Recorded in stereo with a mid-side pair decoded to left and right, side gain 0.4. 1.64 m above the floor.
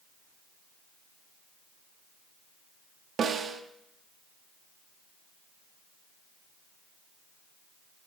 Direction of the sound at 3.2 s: 60° right.